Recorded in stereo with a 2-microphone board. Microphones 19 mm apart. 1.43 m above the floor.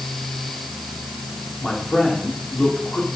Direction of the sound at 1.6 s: 65° left (ahead or behind).